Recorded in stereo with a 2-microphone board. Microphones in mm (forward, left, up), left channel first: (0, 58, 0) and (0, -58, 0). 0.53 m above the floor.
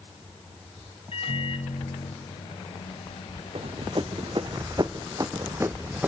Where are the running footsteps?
60° right (ahead or behind), 2 m; by 6.1 s 15° right (ahead or behind), 1.3 m.